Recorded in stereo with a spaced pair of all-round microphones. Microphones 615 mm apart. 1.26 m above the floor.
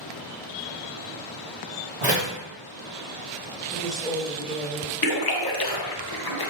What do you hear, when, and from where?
2.0 s a door slam: 50° right (ahead or behind), 1.4 m
3.7 s a woman speaking: centre (ahead or behind), 1.3 m
5.0 s a splash: 40° left (ahead or behind), 0.5 m